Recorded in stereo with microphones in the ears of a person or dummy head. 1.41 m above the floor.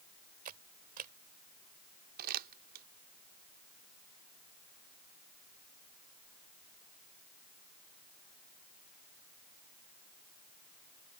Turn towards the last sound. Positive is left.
turn(degrees=-50)  # may be behind; listen again after turning